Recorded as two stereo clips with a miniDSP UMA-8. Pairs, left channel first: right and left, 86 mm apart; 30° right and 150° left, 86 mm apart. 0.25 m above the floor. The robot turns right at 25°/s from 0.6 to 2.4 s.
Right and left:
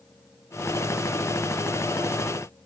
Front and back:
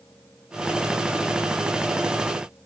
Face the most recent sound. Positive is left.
No sound to turn to.